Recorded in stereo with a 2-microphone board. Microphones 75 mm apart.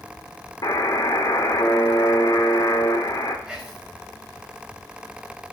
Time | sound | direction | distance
0.6 | a buzzer | 55° left (ahead or behind) | 1.6 m
3.5 | whispering | 15° right (ahead or behind) | 3.5 m